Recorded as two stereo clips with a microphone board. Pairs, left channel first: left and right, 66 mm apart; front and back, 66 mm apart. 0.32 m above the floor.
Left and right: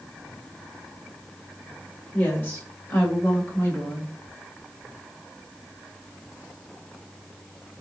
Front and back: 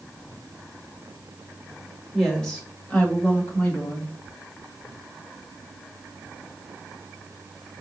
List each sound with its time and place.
2.1 s a woman speaking: 95° left, 1.0 m; by 4.1 s 25° left, 1.5 m